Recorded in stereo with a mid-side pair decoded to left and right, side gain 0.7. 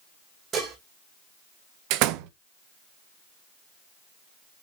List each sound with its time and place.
0.5 s dishes clattering: 35° right, 4 m
1.9 s a door slam: 65° right, 1.0 m